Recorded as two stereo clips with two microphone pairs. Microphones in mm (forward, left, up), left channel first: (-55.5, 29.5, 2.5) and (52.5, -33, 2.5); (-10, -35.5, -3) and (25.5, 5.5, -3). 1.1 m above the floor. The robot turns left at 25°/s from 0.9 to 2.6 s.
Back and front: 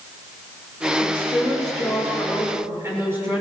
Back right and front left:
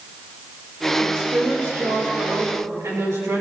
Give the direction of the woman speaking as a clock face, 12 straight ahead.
9 o'clock.